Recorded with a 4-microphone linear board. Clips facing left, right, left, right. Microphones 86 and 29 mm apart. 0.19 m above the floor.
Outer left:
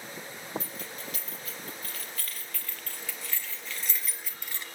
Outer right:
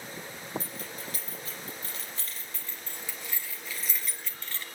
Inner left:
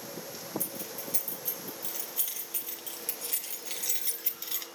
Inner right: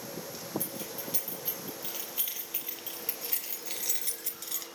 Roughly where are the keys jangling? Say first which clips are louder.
Outer right 1 dB, inner right 1 dB; right.